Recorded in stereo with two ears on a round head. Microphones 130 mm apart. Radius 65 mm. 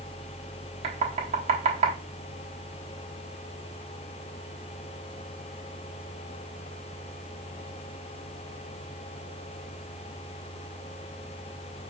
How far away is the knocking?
About 1.2 m.